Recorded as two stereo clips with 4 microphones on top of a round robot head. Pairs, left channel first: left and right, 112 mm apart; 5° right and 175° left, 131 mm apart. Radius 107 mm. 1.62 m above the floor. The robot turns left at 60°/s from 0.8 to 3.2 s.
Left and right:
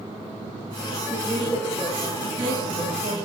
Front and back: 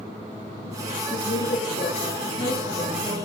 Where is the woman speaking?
20° left, 3 m; by 3.2 s 105° right, 3 m.